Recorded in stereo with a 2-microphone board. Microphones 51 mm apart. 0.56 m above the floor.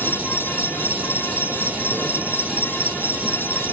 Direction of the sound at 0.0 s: 30° right (ahead or behind).